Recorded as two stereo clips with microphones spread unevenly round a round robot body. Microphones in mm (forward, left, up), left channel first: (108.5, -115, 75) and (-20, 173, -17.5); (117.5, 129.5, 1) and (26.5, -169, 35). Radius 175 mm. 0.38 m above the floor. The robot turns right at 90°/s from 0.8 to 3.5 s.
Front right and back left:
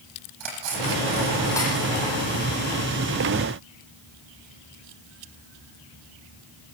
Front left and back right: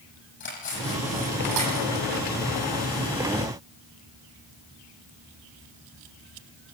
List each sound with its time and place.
0.4 s cutlery clinking: 140° left, 10 m; by 2.0 s 105° right, 10 m